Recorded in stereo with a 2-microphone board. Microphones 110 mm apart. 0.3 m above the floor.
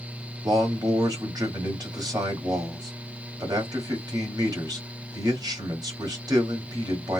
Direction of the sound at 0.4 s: 35° right (ahead or behind).